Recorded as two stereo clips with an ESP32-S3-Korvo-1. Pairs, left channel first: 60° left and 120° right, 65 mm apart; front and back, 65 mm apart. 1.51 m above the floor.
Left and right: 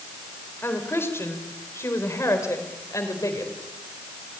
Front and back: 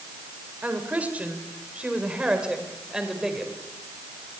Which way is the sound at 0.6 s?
115° left.